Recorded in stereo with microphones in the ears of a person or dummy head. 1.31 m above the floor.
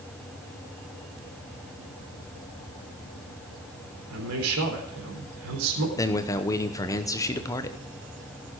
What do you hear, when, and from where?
4.1 s a man speaking: 85° right, 3.5 m
6.0 s a man speaking: 15° left (ahead or behind), 1.0 m